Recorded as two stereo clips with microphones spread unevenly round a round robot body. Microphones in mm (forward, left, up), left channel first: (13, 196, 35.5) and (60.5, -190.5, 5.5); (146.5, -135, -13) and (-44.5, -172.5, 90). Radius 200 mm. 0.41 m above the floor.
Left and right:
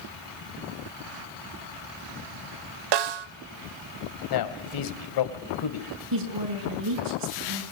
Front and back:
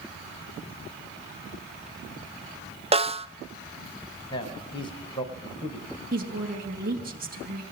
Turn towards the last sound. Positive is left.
turn(degrees=-120)